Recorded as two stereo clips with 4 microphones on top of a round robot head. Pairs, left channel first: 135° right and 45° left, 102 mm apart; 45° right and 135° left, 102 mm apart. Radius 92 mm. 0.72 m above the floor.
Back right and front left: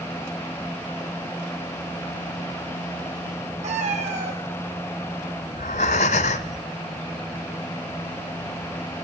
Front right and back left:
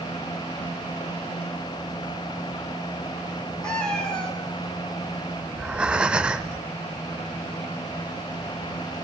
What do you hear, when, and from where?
3.6 s a cat meowing: 40° left, 3 m
5.5 s breathing: 140° right, 0.6 m